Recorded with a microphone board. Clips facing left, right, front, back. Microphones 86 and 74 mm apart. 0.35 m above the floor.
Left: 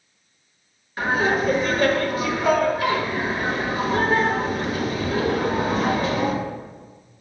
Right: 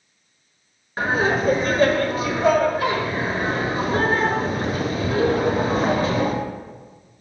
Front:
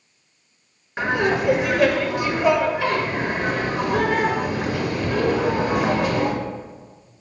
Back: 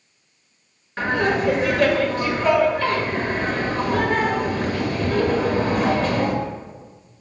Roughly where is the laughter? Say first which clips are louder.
Right 1 dB, even; right.